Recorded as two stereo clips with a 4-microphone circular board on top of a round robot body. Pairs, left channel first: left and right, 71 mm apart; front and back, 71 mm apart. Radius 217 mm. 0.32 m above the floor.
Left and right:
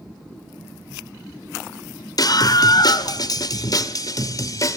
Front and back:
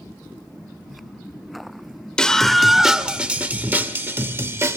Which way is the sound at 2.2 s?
80° left.